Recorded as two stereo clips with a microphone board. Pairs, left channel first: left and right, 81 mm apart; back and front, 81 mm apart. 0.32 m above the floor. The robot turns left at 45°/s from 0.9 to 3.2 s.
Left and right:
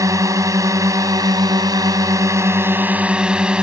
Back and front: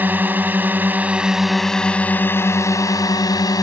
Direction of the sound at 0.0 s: 60° right.